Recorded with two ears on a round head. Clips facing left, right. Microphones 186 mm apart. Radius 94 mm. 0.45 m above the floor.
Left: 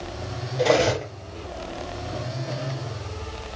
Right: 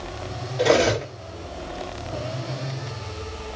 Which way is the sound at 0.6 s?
Centre (ahead or behind).